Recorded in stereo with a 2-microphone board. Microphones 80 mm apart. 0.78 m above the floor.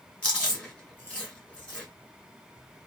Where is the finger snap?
I don't hear a finger snap.